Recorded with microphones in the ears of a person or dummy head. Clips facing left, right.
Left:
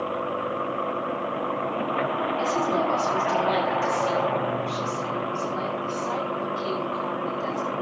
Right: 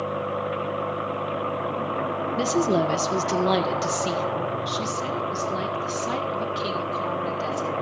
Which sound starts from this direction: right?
A woman speaking, at 2.4 s.